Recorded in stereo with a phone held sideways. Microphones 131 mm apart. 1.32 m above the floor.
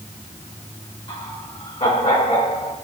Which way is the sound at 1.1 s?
40° left (ahead or behind).